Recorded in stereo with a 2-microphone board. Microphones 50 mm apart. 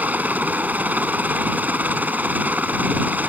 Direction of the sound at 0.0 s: 30° right (ahead or behind).